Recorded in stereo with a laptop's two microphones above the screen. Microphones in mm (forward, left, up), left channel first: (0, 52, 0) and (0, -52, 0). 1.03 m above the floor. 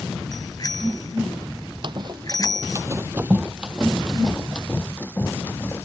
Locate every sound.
0.3 s a bicycle bell: 40° left (ahead or behind)
1.8 s running footsteps: 50° right (ahead or behind); by 5.8 s 25° left (ahead or behind)